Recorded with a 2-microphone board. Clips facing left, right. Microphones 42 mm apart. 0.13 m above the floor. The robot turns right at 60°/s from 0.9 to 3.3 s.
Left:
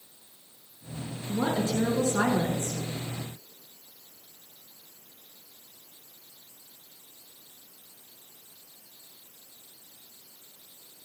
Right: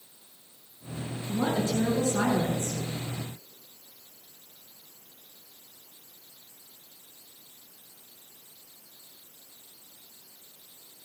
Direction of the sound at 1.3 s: 40° left.